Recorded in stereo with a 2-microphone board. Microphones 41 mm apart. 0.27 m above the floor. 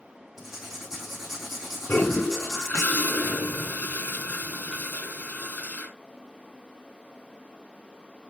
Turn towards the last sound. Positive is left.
turn(degrees=45)  # may be behind; listen again after turning